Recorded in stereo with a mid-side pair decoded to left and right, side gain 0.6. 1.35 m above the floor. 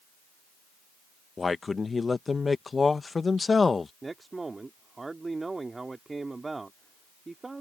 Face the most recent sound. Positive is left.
turn(degrees=-20)